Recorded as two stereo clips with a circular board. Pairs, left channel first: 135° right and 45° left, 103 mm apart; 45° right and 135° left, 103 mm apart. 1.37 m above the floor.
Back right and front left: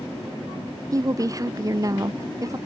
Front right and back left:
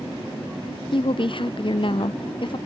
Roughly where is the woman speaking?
Ahead.